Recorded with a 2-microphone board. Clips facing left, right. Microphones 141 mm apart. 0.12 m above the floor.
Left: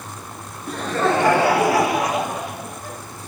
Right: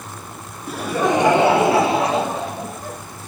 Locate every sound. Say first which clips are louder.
0.7 s laughter: right 1 dB; 5° right (ahead or behind), 1.3 m; by 3.0 s 35° right (ahead or behind), 3.5 m